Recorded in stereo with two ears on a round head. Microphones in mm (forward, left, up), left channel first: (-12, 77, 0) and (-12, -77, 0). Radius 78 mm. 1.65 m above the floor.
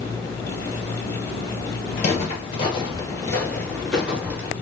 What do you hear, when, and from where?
2.0 s footsteps: 45° left (ahead or behind), 2.5 m; by 4.5 s 15° right (ahead or behind), 1.8 m